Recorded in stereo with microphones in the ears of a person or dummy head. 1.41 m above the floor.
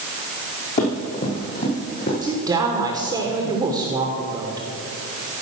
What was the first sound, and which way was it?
Running footsteps, 40° left (ahead or behind).